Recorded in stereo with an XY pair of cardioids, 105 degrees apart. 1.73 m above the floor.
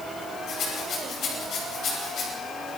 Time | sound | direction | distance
0.5 | a rattle | 65° left | 9.5 m